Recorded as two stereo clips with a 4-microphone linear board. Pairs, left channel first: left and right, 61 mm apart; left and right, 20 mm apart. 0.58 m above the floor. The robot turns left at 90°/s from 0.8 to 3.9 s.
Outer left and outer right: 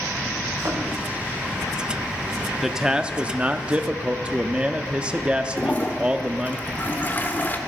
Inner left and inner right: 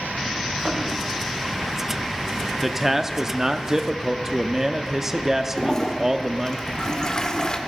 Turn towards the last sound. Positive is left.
turn(degrees=30)  # may be behind; listen again after turning